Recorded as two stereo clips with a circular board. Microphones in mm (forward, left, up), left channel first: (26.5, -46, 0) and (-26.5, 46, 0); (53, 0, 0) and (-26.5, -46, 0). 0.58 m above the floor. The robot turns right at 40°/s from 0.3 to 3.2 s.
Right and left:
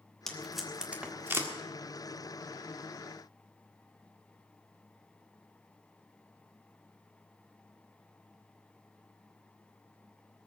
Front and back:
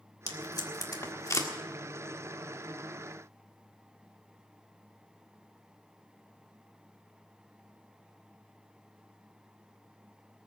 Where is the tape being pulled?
20° left, 1.6 m; by 1.5 s 70° left, 1.6 m.